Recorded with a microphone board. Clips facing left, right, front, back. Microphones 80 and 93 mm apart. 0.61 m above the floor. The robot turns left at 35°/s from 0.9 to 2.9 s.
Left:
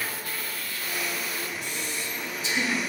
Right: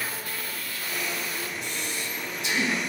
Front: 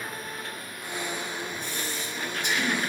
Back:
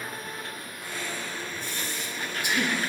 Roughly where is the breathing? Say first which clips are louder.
Even, front 1 dB; right.